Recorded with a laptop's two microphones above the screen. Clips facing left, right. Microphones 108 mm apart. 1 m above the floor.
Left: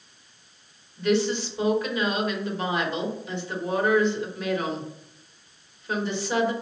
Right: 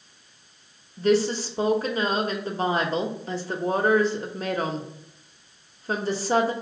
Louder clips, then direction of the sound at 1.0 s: Right 2 dB; 35° right (ahead or behind).